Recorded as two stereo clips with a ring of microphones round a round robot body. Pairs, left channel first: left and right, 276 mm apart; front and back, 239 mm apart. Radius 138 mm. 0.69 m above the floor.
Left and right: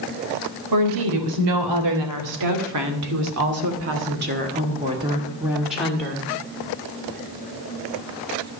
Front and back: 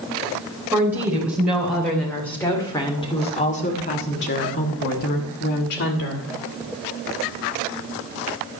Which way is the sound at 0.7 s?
95° right.